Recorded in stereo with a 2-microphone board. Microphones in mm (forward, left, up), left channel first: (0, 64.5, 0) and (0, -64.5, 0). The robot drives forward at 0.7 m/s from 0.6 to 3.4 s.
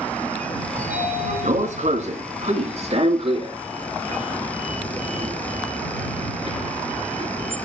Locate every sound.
0.8 s a sliding door: 80° right, 2 m; by 7.6 s 45° right (ahead or behind), 3 m